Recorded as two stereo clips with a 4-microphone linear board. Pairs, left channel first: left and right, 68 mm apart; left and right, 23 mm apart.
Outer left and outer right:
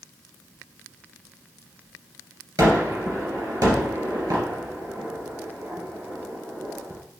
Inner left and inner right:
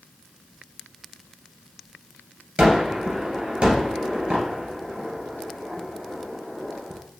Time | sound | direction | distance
2.6 | a gunshot | 60° right (ahead or behind) | 2.5 m